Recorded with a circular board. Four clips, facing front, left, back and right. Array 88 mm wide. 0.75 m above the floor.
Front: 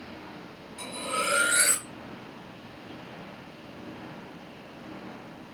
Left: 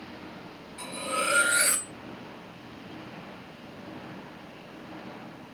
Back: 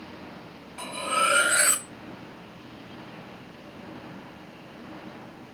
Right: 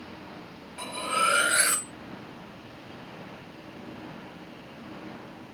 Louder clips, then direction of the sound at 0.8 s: Right 4 dB, back 5 dB; 140° right.